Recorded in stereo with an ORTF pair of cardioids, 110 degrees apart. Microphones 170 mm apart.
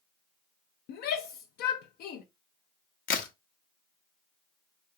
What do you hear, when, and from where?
0.9 s a shout: 65° left, 0.5 m
3.1 s a crack: 55° left, 0.8 m